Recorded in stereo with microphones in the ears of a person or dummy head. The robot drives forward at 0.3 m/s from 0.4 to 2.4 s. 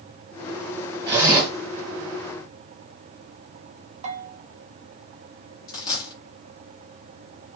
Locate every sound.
1.1 s a zipper: 20° right (ahead or behind), 1.5 m
4.0 s a bell: 40° right (ahead or behind), 0.6 m
5.7 s a dropped coin: 25° left (ahead or behind), 0.8 m